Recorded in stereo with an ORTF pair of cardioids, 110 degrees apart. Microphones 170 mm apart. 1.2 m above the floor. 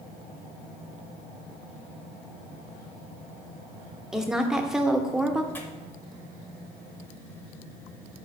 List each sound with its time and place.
4.1 s a woman speaking: 5° right, 0.5 m
5.5 s tearing paper: 10° left, 0.7 m